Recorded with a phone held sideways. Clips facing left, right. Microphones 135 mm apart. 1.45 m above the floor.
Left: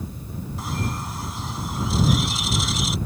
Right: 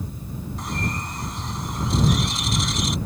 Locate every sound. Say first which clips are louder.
0.6 s a bird: even; 5° left (ahead or behind)